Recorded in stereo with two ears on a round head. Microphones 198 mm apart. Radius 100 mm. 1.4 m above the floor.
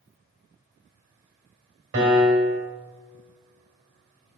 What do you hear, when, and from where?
1.9 s a piano: 65° right (ahead or behind), 2 m